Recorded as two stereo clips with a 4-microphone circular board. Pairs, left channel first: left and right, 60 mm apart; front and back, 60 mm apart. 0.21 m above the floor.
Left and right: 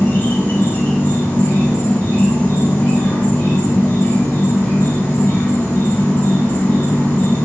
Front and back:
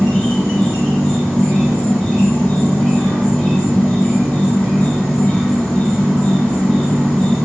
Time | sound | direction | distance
0.0 | an insect | 60° left | 1.4 m